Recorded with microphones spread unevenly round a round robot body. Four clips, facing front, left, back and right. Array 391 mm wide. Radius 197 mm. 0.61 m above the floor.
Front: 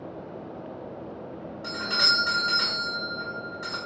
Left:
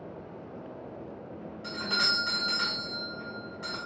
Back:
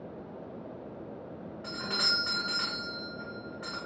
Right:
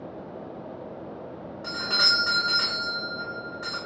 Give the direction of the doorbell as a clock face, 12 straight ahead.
3 o'clock.